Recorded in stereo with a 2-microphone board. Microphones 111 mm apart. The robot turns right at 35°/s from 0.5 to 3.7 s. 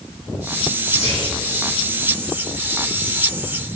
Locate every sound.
0.8 s whispering: 85° left, 3 m; by 1.3 s 80° left, 3 m